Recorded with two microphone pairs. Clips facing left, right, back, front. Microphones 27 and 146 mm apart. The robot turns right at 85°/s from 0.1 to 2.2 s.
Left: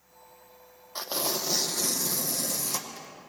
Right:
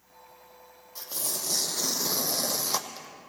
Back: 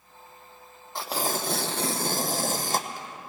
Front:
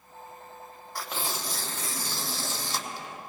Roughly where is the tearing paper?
Behind left.